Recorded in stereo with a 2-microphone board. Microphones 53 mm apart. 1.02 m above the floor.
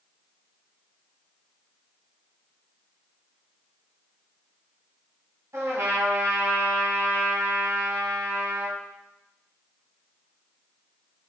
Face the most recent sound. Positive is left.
turn(degrees=-65)  # may be behind; listen again after turning